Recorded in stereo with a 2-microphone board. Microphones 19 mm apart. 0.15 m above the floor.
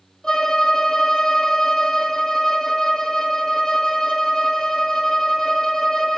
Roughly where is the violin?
Left.